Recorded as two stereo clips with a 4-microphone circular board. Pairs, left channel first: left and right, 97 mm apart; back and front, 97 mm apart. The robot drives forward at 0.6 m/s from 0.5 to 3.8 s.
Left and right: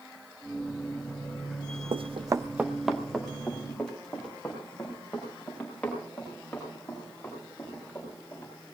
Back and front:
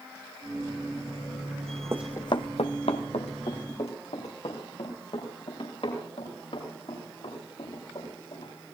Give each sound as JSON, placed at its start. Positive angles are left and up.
{"t": 1.9, "sound": "running footsteps", "azimuth_deg": -60, "distance_m": 0.6}